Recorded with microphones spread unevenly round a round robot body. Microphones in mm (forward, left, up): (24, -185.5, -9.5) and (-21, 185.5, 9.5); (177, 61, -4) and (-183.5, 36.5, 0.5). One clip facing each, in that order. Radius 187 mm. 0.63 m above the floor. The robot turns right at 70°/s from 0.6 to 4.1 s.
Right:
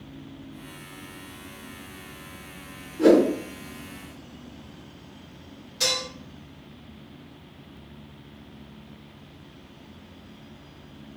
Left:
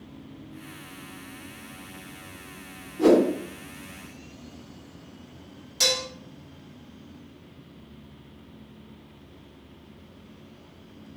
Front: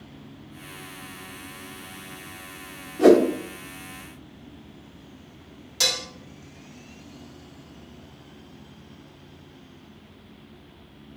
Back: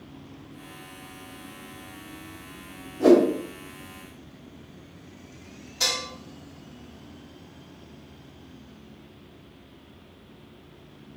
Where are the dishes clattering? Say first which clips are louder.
Left 2 dB, front 2 dB; 35° left, 0.8 m.